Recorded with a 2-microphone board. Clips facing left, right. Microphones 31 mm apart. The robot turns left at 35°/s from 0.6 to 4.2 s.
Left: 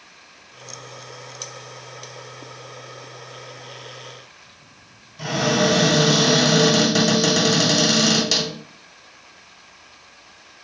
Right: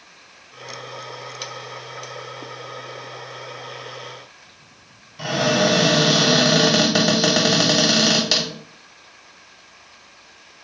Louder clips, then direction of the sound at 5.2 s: Right 1 dB; 20° right (ahead or behind).